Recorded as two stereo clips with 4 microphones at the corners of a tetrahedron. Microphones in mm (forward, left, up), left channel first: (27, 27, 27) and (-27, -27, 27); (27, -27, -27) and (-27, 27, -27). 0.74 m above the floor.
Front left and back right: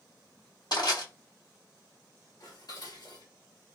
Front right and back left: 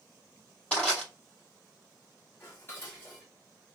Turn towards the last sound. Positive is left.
turn(degrees=15)